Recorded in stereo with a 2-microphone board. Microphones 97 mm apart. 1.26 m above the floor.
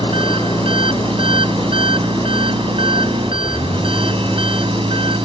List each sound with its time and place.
0.0 s an engine running: 70° right (ahead or behind)